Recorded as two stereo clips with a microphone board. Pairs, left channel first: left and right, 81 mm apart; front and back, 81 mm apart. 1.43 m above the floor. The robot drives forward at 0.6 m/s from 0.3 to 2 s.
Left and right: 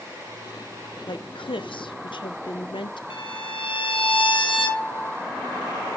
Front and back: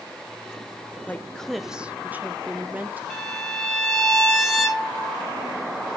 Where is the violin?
90° left, 1.7 m.